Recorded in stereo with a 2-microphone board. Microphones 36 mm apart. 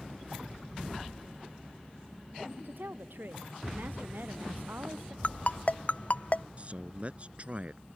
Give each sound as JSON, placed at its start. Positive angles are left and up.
{"t": 2.6, "sound": "a woman speaking", "side_deg": -80}
{"t": 5.2, "sound": "a ringtone", "side_deg": 45}
{"t": 6.6, "sound": "a man speaking", "side_deg": -40}